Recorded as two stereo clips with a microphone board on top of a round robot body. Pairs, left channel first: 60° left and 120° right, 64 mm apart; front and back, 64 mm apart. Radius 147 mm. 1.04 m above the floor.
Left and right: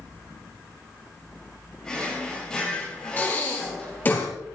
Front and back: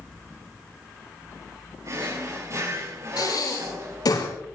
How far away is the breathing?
About 7.5 m.